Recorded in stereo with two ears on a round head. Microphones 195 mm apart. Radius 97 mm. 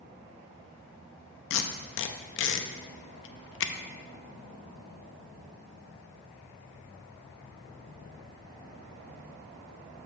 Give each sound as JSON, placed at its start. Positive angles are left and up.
{"t": 1.5, "sound": "tape being pulled", "side_deg": 60, "distance_m": 0.6}